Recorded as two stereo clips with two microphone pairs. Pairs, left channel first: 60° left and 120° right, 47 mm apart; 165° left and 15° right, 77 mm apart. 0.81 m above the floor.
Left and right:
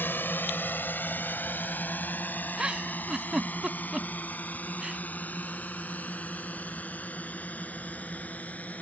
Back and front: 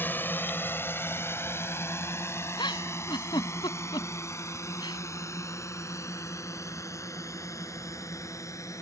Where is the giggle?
170° left.